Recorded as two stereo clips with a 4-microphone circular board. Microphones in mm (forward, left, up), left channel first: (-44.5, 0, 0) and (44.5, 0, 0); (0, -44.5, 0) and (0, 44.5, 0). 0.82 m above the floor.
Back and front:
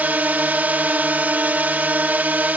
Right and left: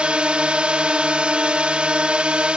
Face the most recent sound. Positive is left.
turn(degrees=35)